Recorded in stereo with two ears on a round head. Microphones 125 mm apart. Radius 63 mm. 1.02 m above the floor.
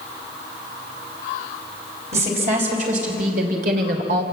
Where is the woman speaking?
50° right (ahead or behind), 5 m; by 4.2 s 85° right, 3 m.